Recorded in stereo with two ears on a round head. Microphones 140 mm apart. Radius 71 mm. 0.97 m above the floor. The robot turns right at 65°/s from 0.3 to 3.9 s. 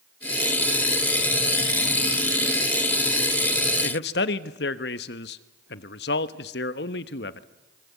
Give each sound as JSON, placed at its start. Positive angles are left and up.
{"t": 3.8, "sound": "a man speaking", "side_deg": 70, "distance_m": 1.1}